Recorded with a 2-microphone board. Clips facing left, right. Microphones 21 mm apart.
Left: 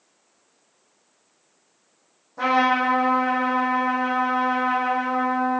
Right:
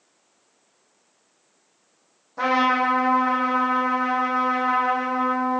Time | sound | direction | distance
2.4 | a trumpet | 25° right (ahead or behind) | 2.5 m